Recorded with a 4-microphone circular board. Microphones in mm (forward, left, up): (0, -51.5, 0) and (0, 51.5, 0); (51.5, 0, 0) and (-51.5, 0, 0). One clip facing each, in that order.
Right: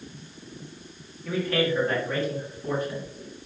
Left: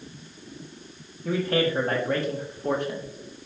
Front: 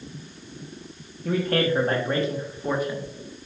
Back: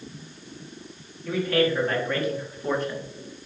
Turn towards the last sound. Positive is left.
turn(degrees=90)